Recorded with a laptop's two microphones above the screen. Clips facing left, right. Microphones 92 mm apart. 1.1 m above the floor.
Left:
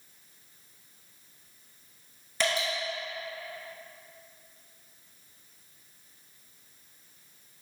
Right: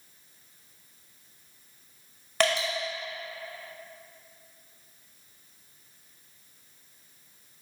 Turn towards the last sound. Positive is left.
turn(degrees=-65)  # may be behind; listen again after turning